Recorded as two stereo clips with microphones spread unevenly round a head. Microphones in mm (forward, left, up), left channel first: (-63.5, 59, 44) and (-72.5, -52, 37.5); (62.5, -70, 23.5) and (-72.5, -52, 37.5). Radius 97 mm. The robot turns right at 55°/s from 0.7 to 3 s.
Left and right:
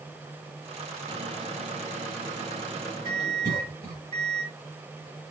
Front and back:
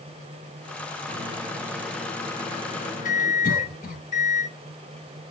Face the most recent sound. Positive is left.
turn(degrees=-30)